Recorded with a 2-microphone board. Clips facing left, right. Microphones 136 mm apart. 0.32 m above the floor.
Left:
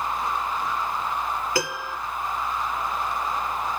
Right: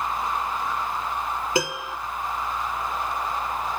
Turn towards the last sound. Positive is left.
turn(degrees=-20)  # may be behind; listen again after turning